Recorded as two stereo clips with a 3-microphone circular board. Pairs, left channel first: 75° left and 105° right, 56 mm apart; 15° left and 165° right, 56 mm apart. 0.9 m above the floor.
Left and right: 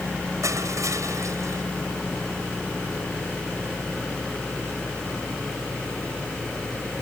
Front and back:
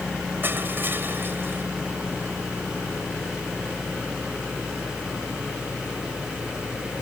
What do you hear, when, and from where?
0.4 s crushing: 115° right